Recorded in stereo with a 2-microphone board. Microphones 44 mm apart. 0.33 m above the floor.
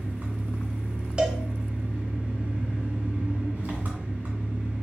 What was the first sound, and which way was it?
An engine running, 40° right (ahead or behind).